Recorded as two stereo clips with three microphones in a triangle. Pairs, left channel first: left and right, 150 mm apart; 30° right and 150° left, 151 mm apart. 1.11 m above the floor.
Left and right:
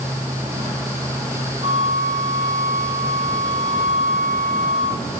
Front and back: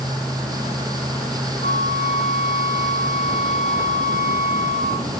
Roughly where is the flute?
Ahead right.